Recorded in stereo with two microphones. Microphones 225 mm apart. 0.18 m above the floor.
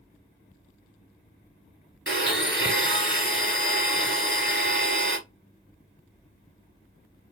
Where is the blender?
50° right (ahead or behind), 1.0 m.